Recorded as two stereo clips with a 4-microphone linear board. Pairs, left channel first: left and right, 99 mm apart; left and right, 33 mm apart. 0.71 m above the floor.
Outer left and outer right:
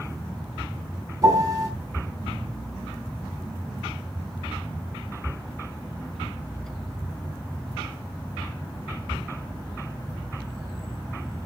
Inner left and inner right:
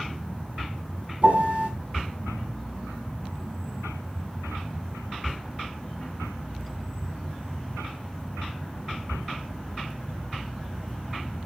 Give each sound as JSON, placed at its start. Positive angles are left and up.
{"t": 1.2, "sound": "a piano", "side_deg": -35, "distance_m": 4.0}